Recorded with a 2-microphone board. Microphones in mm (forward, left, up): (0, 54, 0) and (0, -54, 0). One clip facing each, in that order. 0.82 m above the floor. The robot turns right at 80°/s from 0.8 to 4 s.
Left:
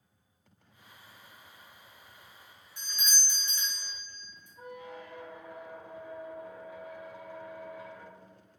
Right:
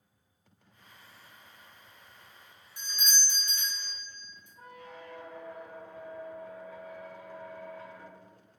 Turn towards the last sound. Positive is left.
turn(degrees=15)  # may be behind; listen again after turning